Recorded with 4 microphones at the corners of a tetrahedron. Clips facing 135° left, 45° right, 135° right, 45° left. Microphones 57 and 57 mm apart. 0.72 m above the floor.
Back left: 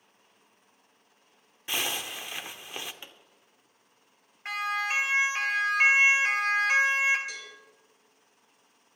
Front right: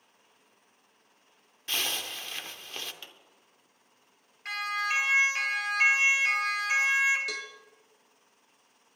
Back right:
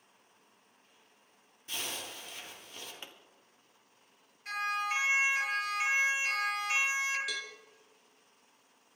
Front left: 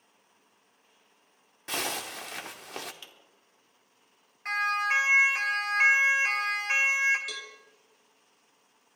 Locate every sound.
1.7 s a zipper: 60° left, 0.8 m
3.0 s a pop: 175° right, 1.4 m
4.5 s a siren: 70° left, 3 m; by 7.2 s 95° left, 2 m
7.3 s a cowbell: 45° right, 1.6 m